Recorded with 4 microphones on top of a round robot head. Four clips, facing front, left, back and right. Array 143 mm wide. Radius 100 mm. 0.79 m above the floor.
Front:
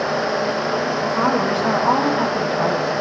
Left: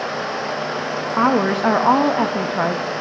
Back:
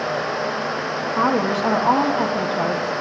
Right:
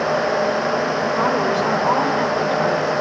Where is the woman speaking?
110° left, 1.4 m.